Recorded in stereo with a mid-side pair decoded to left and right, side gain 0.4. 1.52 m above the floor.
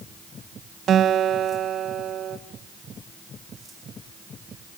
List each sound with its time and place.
0.9 s a guitar: 65° right, 1.3 m